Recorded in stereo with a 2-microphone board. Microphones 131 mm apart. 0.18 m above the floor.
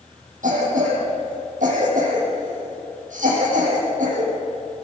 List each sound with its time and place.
0.4 s a cough: 75° right (ahead or behind), 6.5 m